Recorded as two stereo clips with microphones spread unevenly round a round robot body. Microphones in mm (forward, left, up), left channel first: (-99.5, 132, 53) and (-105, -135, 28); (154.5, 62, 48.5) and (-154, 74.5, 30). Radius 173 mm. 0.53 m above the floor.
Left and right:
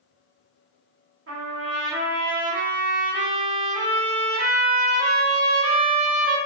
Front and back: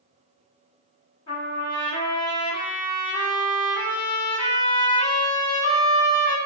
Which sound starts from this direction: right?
A trumpet, at 1.3 s.